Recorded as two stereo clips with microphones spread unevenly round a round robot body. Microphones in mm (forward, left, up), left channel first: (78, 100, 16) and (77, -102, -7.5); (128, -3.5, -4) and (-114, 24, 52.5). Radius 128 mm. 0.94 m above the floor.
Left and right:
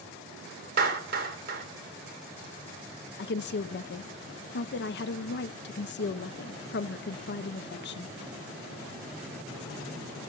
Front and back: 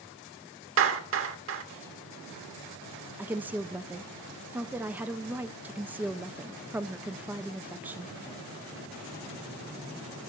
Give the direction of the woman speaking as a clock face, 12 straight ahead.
9 o'clock.